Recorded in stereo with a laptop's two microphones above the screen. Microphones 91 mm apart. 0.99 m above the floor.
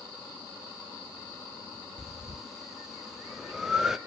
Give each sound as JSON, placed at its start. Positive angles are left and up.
{"t": 2.0, "sound": "breathing", "side_deg": -5, "distance_m": 1.1}